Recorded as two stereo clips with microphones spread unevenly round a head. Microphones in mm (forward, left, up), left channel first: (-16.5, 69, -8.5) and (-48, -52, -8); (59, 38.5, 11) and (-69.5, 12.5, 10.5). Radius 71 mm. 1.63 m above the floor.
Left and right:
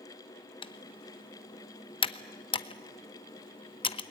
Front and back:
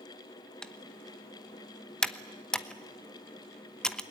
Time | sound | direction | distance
0.6 | typing on a keyboard | 90° left | 0.9 m